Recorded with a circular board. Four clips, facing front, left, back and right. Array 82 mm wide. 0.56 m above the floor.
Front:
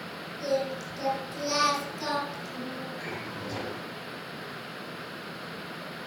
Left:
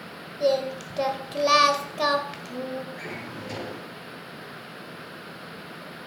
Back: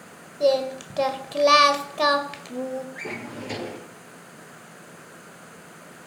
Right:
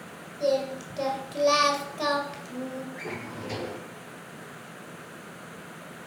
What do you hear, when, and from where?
0.4 s singing: 160° left, 1.8 m
3.0 s a drawer: 175° right, 6 m